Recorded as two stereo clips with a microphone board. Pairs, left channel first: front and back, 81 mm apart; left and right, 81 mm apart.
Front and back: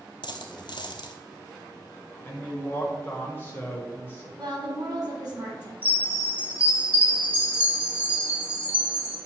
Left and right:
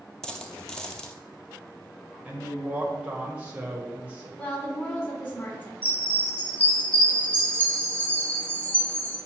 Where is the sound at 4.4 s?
155° left, 2.5 m.